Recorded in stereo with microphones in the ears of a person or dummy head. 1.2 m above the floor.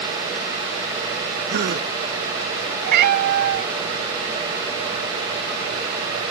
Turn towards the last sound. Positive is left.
turn(degrees=-60)  # may be behind; listen again after turning